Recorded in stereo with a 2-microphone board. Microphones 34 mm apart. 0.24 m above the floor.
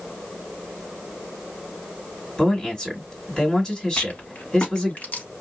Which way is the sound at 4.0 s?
45° left (ahead or behind).